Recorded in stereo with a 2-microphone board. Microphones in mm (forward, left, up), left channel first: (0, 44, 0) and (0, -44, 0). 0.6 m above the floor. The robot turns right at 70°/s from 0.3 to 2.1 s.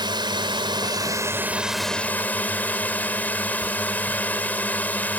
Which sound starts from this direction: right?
A drone, at 0.0 s.